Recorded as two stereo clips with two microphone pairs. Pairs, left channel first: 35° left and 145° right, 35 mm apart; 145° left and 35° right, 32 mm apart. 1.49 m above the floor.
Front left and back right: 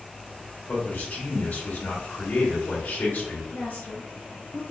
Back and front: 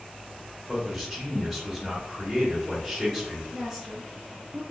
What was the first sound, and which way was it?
A man speaking, 55° left.